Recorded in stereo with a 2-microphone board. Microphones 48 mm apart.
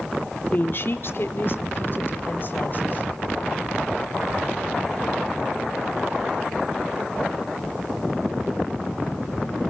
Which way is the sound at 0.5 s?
40° left (ahead or behind).